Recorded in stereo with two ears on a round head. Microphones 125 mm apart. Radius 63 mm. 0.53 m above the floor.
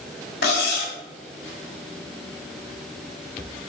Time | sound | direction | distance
0.4 | cutlery clinking | 75° left (ahead or behind) | 1.7 m